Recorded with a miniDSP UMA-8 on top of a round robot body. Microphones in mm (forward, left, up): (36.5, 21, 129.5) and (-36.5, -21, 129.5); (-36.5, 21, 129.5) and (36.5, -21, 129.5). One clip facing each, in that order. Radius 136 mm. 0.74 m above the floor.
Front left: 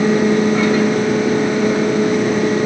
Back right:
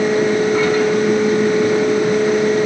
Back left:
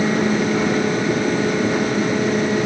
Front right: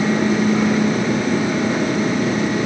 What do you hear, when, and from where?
Only background noise.